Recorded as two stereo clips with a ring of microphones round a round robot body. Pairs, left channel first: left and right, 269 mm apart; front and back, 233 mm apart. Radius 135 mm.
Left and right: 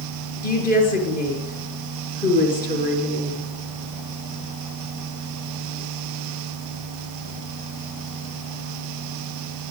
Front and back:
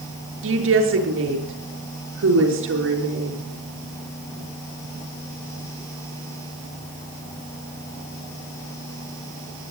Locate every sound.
0.4 s a woman speaking: 150° left, 5.5 m